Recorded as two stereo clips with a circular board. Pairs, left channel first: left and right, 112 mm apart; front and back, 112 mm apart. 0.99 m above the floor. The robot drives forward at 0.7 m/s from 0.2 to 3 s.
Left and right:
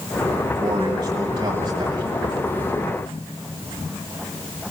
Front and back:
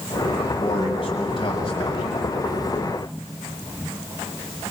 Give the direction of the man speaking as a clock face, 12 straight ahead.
1 o'clock.